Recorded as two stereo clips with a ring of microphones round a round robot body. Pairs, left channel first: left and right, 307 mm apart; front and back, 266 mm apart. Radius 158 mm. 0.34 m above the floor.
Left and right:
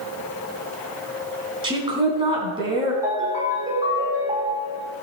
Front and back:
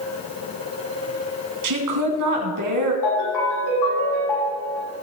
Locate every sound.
1.6 s a woman speaking: 165° right, 4 m
3.0 s a ringtone: 10° right, 6.5 m